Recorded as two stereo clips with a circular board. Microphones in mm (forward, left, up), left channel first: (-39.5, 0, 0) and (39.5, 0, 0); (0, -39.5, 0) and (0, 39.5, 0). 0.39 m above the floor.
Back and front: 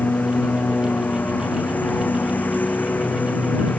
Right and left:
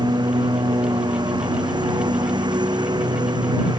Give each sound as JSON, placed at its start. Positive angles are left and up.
{"t": 0.0, "sound": "a lawn mower", "azimuth_deg": 110}